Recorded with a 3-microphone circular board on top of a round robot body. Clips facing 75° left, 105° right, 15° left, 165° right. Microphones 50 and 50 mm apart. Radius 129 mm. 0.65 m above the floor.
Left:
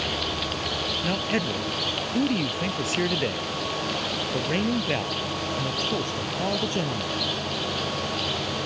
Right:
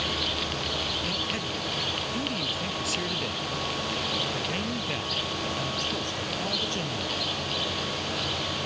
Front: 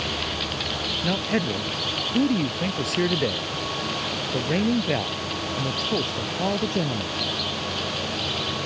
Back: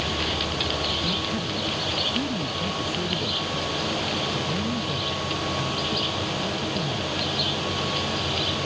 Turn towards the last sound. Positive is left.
turn(degrees=10)